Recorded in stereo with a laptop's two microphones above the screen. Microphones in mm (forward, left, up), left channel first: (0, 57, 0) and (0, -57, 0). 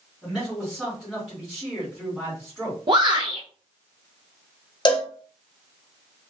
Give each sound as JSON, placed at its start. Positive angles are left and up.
{"t": 0.2, "sound": "a man speaking", "side_deg": 5, "distance_m": 1.7}
{"t": 2.9, "sound": "a shout", "side_deg": -40, "distance_m": 0.6}
{"t": 4.8, "sound": "a cowbell", "side_deg": 40, "distance_m": 0.6}